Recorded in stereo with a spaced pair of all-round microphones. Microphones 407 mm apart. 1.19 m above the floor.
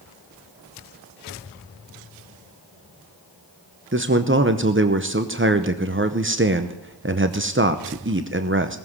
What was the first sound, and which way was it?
A man speaking, 30° right (ahead or behind).